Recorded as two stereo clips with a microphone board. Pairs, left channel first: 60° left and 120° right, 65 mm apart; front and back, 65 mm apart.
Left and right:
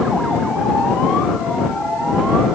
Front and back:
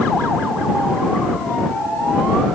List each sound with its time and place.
Only background noise.